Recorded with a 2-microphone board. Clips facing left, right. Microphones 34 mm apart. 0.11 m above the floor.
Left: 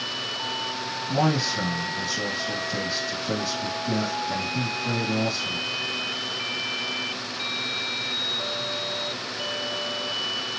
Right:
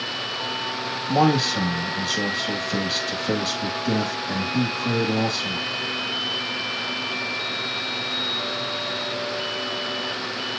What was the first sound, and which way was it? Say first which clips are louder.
A man speaking: right 5 dB; 50° right (ahead or behind).